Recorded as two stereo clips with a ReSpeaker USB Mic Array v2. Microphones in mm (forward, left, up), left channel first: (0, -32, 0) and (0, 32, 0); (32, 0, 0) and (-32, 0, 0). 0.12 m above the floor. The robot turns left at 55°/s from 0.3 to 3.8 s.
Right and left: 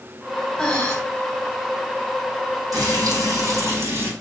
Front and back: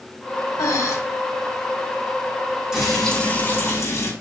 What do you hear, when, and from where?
0.6 s breathing: 15° right, 3.5 m; by 0.9 s 35° right, 3.5 m
2.7 s frying: 100° left, 5 m; by 4.1 s 40° left, 5 m